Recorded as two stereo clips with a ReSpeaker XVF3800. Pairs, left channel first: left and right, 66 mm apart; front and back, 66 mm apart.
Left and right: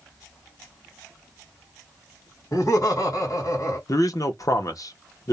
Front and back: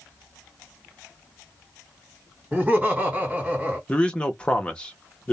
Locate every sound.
2.5 s laughter: 110° left, 1.7 m
3.9 s a man speaking: 70° left, 0.8 m